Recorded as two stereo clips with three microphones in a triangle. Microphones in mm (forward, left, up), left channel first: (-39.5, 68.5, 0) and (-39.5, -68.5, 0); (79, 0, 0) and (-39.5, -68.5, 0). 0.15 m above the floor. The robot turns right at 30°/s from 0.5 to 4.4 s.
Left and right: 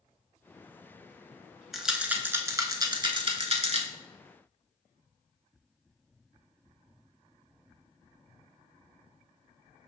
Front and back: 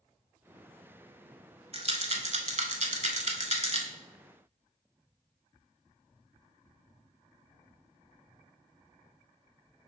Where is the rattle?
Straight behind, 0.6 m; by 3.9 s 115° right, 0.6 m.